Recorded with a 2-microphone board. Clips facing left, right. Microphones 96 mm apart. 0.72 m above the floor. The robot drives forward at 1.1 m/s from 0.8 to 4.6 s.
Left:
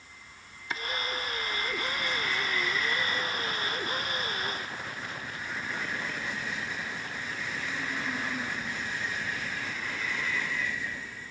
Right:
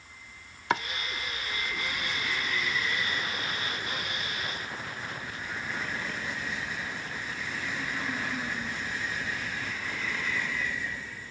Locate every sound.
0.7 s chopping: 70° right (ahead or behind); by 7.8 s 10° right (ahead or behind)